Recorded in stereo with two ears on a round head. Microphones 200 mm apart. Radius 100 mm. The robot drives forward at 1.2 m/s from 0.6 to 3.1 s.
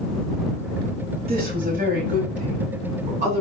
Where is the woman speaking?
45° right (ahead or behind), 5.5 m; by 3.4 s 35° right (ahead or behind), 7.5 m.